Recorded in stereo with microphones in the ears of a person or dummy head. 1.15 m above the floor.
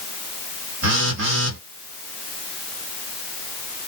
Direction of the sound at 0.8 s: 70° right (ahead or behind).